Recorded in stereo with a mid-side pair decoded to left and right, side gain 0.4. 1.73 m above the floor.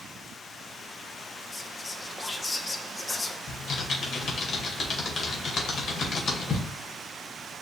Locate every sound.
1.5 s whispering: 30° left, 0.9 m
3.5 s typing on a keyboard: 60° left, 1.6 m